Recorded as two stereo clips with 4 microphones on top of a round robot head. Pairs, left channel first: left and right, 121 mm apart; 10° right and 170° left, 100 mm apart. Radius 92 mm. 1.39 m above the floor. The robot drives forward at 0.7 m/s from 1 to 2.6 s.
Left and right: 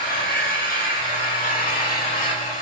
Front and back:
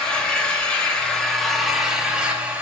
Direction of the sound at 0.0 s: 70° left.